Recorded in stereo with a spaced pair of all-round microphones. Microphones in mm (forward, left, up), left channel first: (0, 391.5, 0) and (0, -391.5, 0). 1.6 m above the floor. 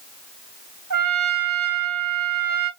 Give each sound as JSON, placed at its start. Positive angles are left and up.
{"t": 0.9, "sound": "a trumpet", "side_deg": -25, "distance_m": 1.5}